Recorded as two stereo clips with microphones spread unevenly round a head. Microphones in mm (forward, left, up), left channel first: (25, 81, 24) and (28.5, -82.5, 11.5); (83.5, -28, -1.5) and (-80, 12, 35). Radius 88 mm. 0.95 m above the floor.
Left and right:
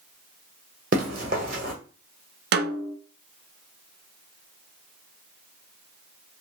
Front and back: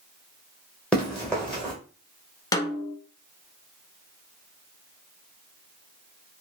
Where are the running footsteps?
110° right, 1.2 m.